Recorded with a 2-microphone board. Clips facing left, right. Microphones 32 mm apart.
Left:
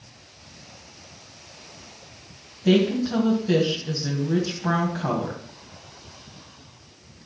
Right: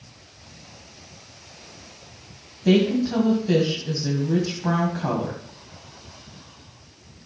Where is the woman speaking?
5° right (ahead or behind), 2.0 m.